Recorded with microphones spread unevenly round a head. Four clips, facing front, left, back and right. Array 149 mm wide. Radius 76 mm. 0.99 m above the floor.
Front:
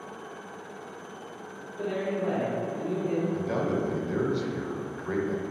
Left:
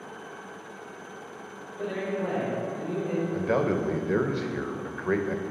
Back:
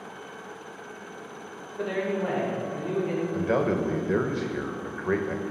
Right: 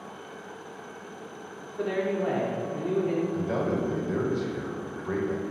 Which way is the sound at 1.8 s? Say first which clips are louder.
Right 3 dB, back 2 dB; 90° right.